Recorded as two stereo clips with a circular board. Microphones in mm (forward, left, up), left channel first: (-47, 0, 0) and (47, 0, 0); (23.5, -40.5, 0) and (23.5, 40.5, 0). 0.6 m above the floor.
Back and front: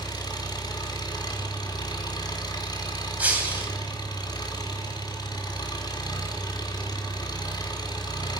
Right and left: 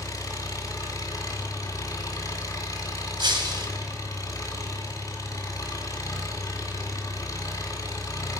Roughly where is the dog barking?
I don't hear a dog barking.